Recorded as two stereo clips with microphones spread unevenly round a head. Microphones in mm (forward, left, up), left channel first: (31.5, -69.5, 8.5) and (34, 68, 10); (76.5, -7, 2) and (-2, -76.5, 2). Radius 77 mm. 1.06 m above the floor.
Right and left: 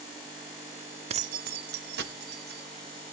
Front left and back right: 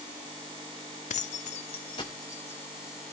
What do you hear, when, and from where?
1.1 s keys jangling: 40° left, 0.6 m; by 3.0 s 120° left, 2 m